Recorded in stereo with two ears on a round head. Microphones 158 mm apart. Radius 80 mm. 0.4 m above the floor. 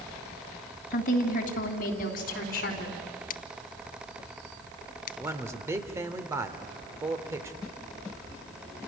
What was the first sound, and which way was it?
A woman speaking, 50° left (ahead or behind).